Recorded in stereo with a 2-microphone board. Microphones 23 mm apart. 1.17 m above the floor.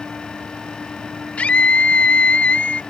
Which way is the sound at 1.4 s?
80° left.